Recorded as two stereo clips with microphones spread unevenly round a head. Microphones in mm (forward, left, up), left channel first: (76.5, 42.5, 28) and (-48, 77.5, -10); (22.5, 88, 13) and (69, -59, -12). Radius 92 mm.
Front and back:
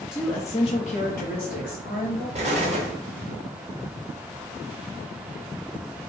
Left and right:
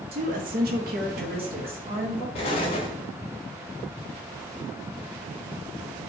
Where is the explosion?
125° left, 1.1 m.